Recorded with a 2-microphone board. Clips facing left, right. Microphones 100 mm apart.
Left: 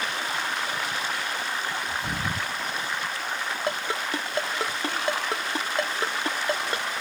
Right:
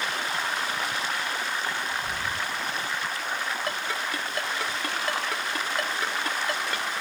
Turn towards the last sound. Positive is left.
turn(degrees=25)  # may be behind; listen again after turning